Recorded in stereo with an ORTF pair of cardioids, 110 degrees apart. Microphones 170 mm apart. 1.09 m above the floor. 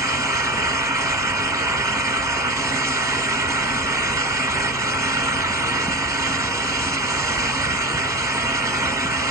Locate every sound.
0.0 s a fan: 15° right, 0.9 m